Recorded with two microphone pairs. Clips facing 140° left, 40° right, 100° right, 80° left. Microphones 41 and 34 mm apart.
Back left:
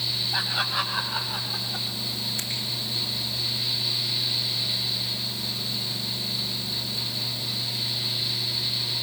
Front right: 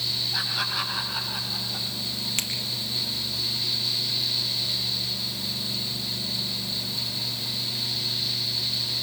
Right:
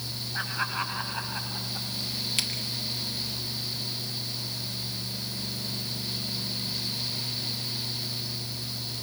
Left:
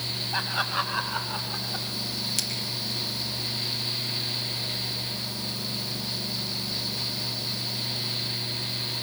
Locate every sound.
0.3 s laughter: 70° left, 7.5 m; by 1.9 s 55° left, 8 m
2.4 s a finger snap: 45° right, 5 m